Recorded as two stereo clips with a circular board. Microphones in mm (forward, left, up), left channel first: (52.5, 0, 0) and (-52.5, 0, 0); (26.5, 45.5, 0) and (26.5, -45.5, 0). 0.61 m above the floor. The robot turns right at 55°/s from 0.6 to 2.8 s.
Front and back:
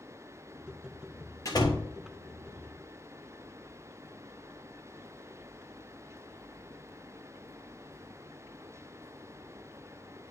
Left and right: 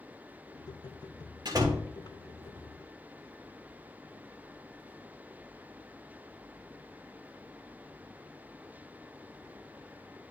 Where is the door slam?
55° right, 1.3 m; by 1.9 s 30° right, 1.3 m.